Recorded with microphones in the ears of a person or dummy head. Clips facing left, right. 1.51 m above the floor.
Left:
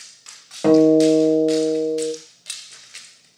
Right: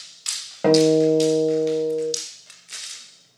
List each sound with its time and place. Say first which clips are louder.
0.6 s a guitar: left 3 dB; centre (ahead or behind), 0.6 m